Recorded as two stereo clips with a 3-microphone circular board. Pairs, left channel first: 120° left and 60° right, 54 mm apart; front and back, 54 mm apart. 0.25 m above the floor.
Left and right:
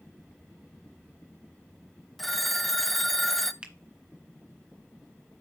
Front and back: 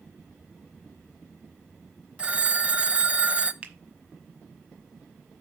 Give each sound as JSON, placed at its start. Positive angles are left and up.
{"t": 2.2, "sound": "a phone ringing", "azimuth_deg": -160, "distance_m": 0.6}
{"t": 3.6, "sound": "a finger snap", "azimuth_deg": -120, "distance_m": 1.3}